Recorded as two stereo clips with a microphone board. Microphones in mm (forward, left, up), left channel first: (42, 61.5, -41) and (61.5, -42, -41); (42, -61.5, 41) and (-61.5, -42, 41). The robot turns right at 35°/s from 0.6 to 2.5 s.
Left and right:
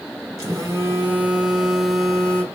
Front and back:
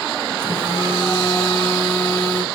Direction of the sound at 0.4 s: 35° right.